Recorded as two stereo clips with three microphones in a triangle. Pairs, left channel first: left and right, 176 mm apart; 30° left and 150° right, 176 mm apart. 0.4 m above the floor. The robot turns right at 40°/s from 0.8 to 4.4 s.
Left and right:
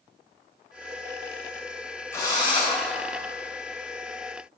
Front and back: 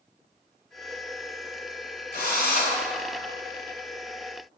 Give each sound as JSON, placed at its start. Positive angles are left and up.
{"t": 2.1, "sound": "a drill", "azimuth_deg": 20, "distance_m": 2.0}